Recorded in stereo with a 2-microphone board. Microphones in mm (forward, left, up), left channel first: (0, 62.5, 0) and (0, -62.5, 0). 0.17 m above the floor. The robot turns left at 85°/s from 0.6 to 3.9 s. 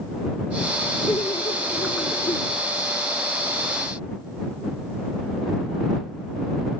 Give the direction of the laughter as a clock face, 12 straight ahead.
7 o'clock.